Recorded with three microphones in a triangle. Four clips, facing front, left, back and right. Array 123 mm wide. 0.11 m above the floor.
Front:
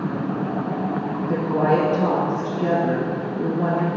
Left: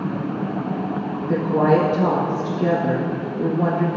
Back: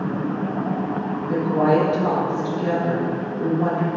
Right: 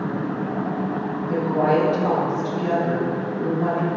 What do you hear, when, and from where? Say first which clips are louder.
1.3 s a woman speaking: left 2 dB, back 2 dB; 65° left, 1.7 m